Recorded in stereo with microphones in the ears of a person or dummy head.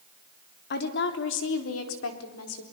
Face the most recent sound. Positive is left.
turn(degrees=85)